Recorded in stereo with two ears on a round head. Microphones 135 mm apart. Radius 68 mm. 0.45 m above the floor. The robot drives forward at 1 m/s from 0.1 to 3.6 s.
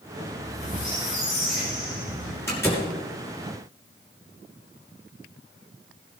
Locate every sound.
0.3 s a squeak: 50° left (ahead or behind), 6.5 m; by 2.4 s 70° left (ahead or behind), 5.5 m
2.5 s a door slam: 15° left (ahead or behind), 5.5 m